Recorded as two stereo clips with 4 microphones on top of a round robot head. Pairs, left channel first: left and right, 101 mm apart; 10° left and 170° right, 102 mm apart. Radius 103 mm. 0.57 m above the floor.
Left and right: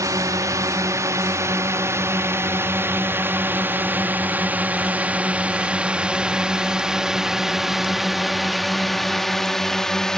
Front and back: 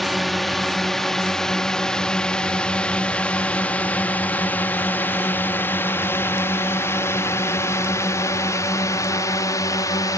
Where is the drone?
80° right; by 10.2 s 10° left.